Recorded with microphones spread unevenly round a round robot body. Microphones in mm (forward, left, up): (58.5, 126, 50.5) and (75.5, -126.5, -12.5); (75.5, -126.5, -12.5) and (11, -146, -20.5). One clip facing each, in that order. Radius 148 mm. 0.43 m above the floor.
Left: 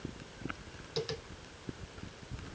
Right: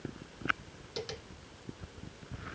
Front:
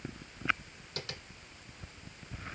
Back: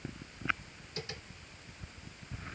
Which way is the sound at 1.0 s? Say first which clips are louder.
Left 4 dB, even; straight ahead.